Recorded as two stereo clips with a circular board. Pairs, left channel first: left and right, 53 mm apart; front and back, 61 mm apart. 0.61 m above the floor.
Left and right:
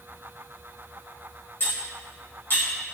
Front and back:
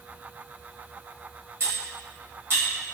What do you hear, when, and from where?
1.6 s cutlery clinking: 135° left, 1.9 m